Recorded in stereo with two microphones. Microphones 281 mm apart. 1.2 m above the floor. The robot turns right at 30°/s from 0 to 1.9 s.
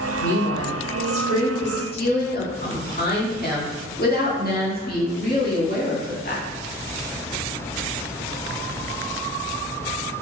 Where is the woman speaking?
95° left, 2.0 m; by 6.4 s 145° left, 2.0 m.